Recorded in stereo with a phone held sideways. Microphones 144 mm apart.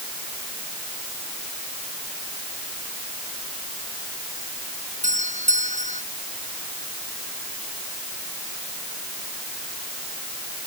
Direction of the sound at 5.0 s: 55° right (ahead or behind).